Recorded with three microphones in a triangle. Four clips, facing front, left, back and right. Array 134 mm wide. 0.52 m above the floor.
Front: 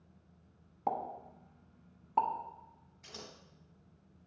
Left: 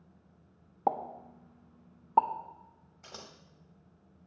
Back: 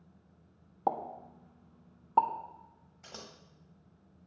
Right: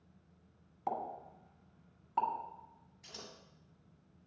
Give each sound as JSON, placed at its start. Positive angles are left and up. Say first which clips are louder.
{"t": 0.9, "sound": "a pop", "louder": "left 7 dB, back 3 dB", "azimuth_deg": 120, "distance_m": 0.5}
{"t": 3.0, "sound": "scissors", "louder": "left 3 dB, back 1 dB", "azimuth_deg": 120, "distance_m": 1.0}